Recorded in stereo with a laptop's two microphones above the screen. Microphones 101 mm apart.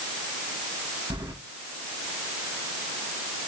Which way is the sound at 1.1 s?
40° right (ahead or behind).